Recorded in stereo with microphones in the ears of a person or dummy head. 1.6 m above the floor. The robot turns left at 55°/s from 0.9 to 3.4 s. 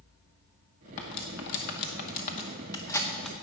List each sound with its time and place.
1.0 s cutlery clinking: 30° left (ahead or behind), 0.9 m; by 3.3 s centre (ahead or behind), 0.9 m